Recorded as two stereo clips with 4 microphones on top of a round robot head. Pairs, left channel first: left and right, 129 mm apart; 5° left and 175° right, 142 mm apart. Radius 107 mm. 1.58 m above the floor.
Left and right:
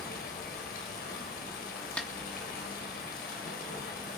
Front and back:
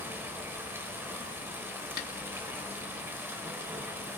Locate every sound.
0.0 s running water: 110° left, 4.5 m
2.0 s a snare drum: 10° left, 3 m